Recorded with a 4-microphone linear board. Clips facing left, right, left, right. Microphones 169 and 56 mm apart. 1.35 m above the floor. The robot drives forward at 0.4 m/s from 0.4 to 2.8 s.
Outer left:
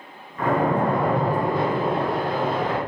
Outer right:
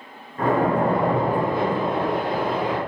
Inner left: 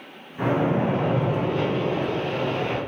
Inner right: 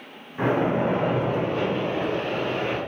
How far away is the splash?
About 0.8 m.